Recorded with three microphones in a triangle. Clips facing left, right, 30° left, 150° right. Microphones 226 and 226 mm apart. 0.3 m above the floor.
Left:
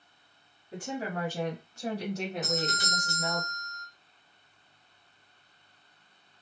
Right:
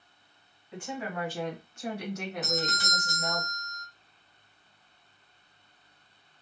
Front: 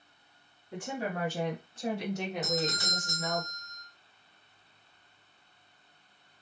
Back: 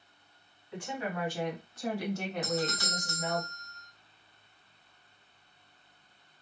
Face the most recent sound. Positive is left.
turn(degrees=80)